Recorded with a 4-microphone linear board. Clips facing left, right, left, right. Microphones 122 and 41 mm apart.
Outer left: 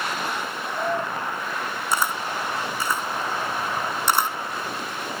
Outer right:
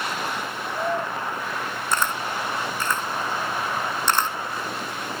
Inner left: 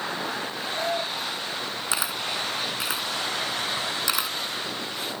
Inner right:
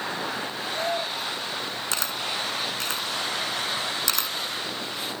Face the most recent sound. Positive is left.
turn(degrees=10)  # may be behind; listen again after turning